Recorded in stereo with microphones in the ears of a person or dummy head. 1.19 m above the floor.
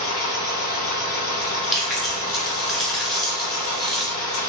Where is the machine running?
40° left (ahead or behind), 0.9 m.